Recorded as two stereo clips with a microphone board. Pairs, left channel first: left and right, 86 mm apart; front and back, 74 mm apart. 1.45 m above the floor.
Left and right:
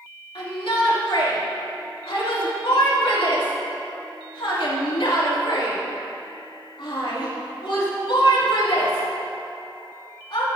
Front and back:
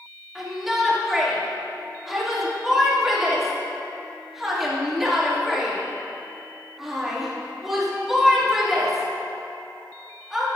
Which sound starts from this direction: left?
A shout, at 0.3 s.